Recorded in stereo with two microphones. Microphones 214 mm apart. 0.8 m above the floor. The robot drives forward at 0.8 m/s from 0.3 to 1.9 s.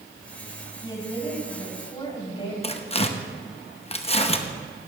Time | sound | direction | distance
0.8 | a woman speaking | 20° left (ahead or behind) | 4.5 m
2.6 | tearing paper | 30° left (ahead or behind) | 0.9 m